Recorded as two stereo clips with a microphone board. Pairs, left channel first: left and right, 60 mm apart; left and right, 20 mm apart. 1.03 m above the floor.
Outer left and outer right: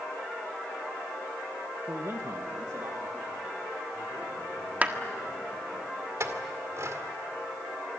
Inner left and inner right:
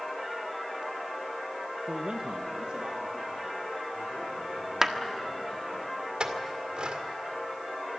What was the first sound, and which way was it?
A man speaking, 45° right (ahead or behind).